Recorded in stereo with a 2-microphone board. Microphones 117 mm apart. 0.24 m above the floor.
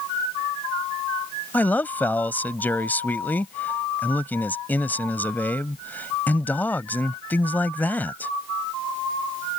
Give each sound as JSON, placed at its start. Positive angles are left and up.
{"t": 1.5, "sound": "a man speaking", "side_deg": 15}